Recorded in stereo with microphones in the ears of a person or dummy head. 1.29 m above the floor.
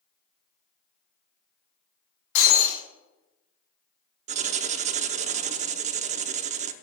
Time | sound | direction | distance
2.4 | breaking glass | 75° left (ahead or behind) | 3.5 m
4.3 | writing | 35° right (ahead or behind) | 0.7 m